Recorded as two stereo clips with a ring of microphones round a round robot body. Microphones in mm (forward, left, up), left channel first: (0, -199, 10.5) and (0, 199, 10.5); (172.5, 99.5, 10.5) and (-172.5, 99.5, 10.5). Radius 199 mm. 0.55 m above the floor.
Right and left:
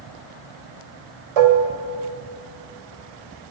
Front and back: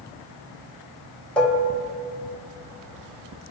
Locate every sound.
1.4 s dishes clattering: 85° left, 1.5 m